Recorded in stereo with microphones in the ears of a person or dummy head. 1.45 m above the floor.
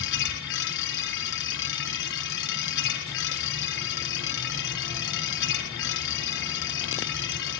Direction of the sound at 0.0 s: 55° left (ahead or behind).